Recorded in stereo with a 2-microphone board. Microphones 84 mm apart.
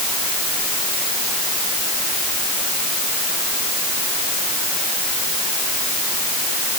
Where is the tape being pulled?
I don't hear tape being pulled.